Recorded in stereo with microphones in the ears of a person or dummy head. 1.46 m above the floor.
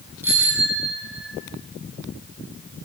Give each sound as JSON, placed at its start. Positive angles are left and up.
{"t": 0.2, "sound": "a bicycle bell", "side_deg": -10, "distance_m": 9.5}